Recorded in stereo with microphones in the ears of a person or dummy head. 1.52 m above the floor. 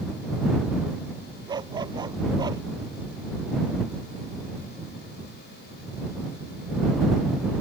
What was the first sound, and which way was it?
A dog barking, 25° right (ahead or behind).